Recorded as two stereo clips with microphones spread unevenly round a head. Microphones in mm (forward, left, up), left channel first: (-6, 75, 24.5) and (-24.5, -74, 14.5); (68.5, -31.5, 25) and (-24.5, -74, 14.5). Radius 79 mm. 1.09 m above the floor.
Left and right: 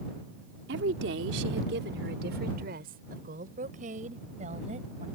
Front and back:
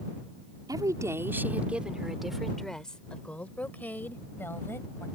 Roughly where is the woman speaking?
Right.